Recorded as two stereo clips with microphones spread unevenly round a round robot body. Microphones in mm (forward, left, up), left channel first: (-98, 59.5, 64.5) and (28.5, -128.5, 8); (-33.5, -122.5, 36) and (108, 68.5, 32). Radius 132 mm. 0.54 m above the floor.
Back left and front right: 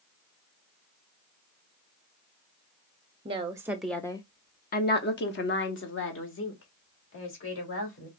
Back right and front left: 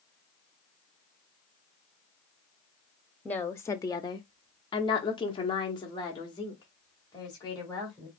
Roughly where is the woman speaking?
Ahead right.